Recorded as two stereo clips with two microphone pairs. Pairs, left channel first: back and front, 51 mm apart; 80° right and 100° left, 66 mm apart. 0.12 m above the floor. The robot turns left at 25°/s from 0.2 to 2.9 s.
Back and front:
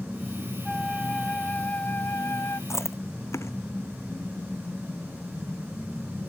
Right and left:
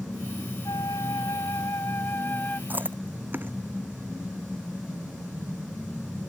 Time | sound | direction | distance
0.7 | a flute | 95° right | ?
2.7 | chewing | 160° left | ?